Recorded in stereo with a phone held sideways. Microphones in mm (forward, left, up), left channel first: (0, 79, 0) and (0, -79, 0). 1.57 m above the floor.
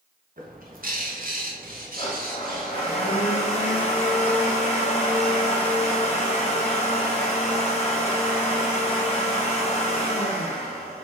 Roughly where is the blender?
Left.